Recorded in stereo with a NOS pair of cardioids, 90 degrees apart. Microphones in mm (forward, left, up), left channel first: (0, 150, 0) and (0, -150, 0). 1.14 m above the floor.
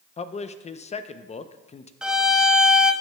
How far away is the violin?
About 0.7 m.